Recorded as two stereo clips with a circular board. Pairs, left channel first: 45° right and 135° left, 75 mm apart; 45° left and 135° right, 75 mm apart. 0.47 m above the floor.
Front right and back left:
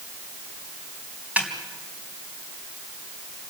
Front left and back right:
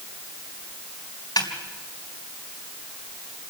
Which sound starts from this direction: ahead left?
A snare drum, at 1.4 s.